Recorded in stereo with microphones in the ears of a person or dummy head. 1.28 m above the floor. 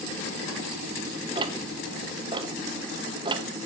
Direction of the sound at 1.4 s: 25° right (ahead or behind).